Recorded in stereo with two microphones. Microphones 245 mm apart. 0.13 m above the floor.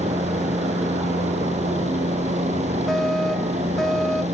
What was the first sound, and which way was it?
A helicopter, 25° right (ahead or behind).